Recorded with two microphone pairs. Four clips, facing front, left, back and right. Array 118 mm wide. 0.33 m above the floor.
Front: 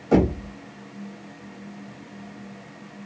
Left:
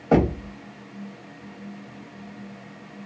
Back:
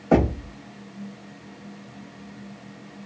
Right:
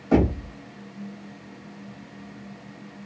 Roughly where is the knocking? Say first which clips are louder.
Left 1 dB, even; behind left.